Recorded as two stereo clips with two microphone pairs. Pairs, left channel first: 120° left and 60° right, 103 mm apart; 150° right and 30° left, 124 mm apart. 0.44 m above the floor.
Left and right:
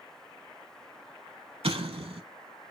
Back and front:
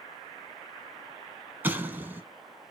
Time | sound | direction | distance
1.6 | an explosion | 50° right | 0.8 m